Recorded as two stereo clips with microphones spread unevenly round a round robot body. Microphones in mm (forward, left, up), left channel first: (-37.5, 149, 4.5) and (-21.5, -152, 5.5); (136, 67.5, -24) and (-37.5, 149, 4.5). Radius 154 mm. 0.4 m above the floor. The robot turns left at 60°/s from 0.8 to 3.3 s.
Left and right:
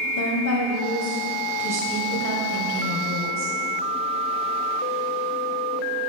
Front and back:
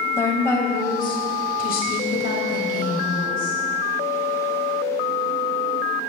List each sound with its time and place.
0.2 s a woman speaking: 50° left, 2.5 m; by 3.6 s 100° right, 2.5 m